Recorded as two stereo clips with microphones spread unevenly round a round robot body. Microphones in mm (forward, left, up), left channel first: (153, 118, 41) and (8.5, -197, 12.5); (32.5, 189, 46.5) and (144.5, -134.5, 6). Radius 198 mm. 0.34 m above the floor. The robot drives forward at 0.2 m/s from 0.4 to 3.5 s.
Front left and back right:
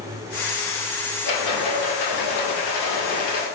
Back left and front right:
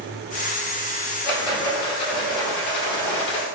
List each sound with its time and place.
1.2 s a rattle: 70° left, 1.8 m; by 3.5 s 85° left, 1.6 m